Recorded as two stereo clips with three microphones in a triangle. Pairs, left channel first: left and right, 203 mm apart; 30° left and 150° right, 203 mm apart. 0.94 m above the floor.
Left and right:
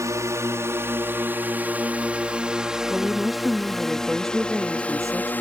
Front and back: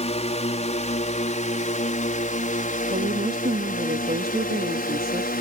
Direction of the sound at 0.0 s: 20° right.